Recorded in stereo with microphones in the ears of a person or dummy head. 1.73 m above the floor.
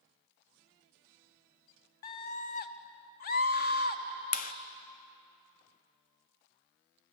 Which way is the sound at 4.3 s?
50° left (ahead or behind).